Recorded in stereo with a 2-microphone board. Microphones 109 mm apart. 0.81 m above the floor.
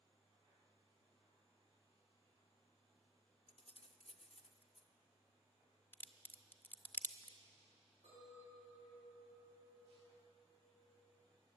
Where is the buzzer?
No buzzer in this recording.